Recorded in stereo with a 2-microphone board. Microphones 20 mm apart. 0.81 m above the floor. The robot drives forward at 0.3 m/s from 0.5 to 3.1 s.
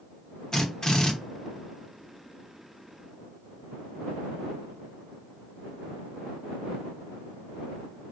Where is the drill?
35° left (ahead or behind), 1.5 m; by 1.1 s 40° left (ahead or behind), 1.3 m.